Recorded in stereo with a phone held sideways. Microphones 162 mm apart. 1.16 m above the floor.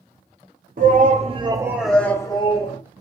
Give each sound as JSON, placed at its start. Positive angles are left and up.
{"t": 0.8, "sound": "a shout", "side_deg": -60, "distance_m": 0.9}